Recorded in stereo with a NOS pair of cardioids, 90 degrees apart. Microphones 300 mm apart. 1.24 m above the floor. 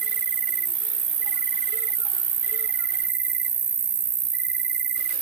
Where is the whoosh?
No whoosh in this recording.